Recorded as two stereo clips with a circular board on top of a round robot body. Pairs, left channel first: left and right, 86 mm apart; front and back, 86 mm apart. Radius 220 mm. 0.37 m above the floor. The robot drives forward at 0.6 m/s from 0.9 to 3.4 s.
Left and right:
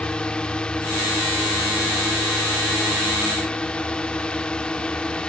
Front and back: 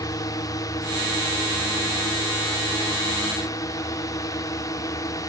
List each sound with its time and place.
0.0 s a drone: 15° left